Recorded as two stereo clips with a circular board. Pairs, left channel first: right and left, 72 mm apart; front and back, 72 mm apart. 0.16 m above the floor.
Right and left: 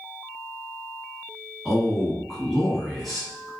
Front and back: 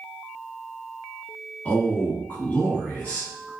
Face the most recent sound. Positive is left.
turn(degrees=0)